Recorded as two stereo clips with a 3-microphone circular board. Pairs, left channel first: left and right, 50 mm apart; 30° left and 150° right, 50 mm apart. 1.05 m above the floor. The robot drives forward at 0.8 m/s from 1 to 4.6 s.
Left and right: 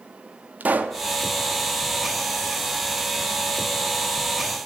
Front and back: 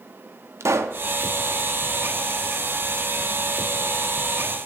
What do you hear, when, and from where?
0.6 s a pop: 145° right, 0.9 m